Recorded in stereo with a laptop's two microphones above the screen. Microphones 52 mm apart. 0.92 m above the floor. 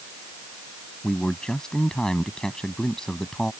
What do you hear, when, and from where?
1.0 s a man speaking: 10° left (ahead or behind)